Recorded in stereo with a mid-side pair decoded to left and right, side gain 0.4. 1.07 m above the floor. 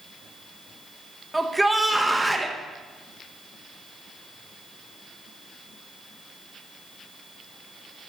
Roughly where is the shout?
Ahead.